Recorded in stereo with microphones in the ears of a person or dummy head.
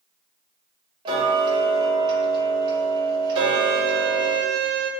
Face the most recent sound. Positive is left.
turn(degrees=-65)  # may be behind; listen again after turning